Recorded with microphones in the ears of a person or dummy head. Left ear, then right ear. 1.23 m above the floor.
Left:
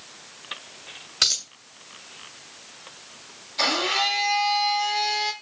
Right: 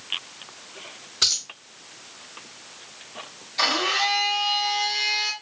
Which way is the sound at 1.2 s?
15° left (ahead or behind).